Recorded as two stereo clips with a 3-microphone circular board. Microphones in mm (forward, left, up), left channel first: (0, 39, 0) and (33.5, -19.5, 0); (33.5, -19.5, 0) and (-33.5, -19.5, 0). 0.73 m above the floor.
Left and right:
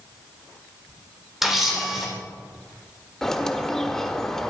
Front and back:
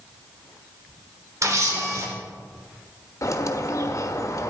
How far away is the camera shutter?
About 3 m.